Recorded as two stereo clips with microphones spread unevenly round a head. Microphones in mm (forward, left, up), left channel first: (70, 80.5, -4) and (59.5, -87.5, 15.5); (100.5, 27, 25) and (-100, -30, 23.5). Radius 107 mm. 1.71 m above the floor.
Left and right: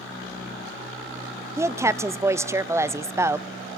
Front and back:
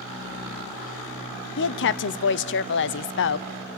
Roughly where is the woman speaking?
Ahead.